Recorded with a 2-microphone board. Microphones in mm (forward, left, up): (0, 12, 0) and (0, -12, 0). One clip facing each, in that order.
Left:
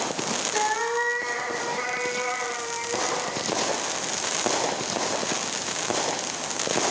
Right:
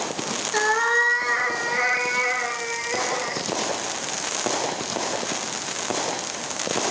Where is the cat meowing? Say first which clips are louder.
Right 6 dB; 35° right (ahead or behind), 4.5 m; by 3.5 s 50° right (ahead or behind), 8.5 m.